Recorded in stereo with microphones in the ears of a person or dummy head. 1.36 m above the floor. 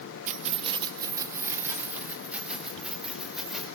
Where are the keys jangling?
50° right (ahead or behind), 1.0 m; by 3.7 s 5° right (ahead or behind), 4 m.